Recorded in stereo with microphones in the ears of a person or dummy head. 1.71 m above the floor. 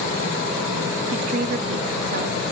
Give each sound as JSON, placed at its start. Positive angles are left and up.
{"t": 1.1, "sound": "a woman speaking", "side_deg": -50, "distance_m": 0.8}